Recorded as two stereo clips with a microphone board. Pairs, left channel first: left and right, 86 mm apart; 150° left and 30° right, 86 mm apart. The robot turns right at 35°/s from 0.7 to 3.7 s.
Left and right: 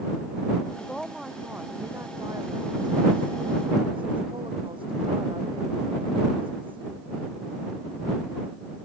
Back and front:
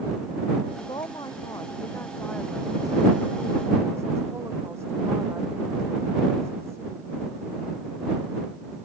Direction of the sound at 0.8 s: 170° left.